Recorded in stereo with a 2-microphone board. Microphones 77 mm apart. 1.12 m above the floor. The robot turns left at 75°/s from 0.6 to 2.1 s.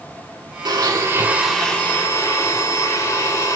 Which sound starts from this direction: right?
A blender, at 0.7 s.